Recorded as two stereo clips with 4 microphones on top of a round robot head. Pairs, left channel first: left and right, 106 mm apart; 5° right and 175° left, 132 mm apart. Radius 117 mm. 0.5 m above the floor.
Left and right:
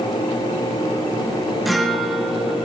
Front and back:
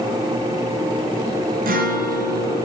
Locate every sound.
1.6 s a guitar: straight behind, 3.5 m